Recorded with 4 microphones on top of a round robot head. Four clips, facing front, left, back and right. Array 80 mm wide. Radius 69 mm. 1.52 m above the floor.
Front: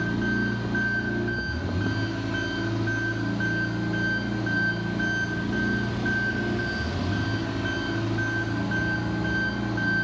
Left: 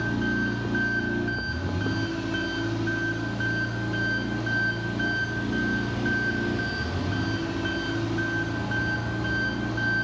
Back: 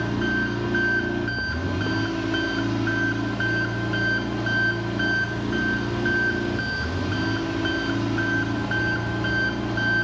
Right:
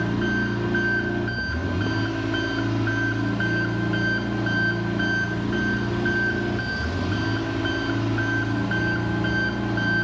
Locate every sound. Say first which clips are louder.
0.0 s an engine running: right 2 dB, back 2 dB; 140° right, 1.0 m